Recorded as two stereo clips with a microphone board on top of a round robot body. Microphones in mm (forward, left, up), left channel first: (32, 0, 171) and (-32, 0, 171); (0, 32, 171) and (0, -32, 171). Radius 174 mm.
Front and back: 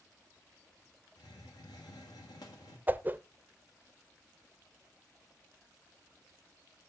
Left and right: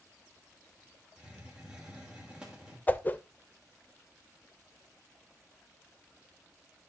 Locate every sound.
1.2 s a hiss: 15° right, 1.3 m
2.9 s a whoosh: 135° left, 0.7 m